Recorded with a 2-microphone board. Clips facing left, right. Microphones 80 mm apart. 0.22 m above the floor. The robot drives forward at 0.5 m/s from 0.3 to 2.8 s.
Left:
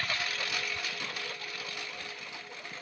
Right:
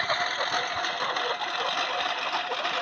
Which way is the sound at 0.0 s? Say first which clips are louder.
Right 8 dB; 40° right (ahead or behind).